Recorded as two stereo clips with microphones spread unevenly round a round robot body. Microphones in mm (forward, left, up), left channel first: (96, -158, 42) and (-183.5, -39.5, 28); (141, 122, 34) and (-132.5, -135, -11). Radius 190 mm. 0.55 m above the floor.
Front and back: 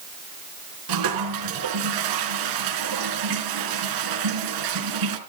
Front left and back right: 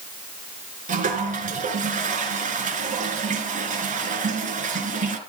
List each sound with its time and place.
0.9 s a toilet flushing: 150° left, 2.5 m